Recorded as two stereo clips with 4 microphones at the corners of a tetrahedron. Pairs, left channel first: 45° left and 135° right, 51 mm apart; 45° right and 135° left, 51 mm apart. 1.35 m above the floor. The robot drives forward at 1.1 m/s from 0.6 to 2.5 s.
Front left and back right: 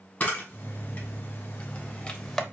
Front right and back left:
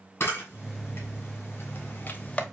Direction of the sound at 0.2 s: 5° right.